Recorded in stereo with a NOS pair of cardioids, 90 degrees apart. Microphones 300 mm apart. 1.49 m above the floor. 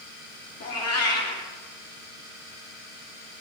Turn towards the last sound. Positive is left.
turn(degrees=60)